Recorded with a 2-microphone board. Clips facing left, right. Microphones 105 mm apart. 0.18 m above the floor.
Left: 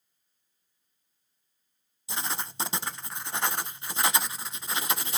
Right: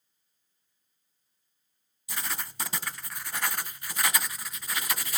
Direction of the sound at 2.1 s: 25° left (ahead or behind).